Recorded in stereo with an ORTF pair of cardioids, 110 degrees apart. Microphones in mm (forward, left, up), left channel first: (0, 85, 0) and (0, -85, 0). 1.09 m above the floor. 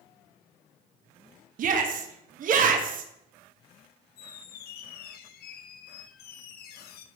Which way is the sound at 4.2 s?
65° left.